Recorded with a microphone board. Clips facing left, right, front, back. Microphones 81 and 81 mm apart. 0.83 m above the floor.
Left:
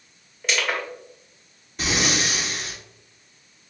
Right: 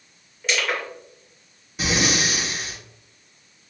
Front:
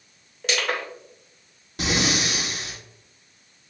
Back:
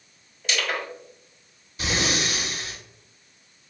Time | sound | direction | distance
0.4 | crushing | straight ahead | 2.5 m
1.8 | breathing | 5° right | 1.3 m